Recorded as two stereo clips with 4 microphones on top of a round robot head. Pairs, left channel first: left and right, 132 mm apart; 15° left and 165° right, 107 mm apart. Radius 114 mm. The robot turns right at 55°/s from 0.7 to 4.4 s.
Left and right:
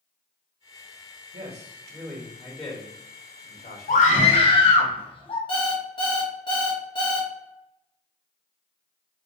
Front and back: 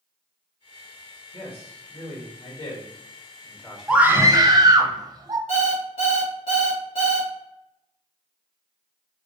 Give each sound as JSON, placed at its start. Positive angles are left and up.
{"t": 1.3, "sound": "a man speaking", "azimuth_deg": -70, "distance_m": 1.2}
{"t": 3.9, "sound": "a scream", "azimuth_deg": 110, "distance_m": 0.8}
{"t": 5.5, "sound": "an alarm clock", "azimuth_deg": 40, "distance_m": 0.9}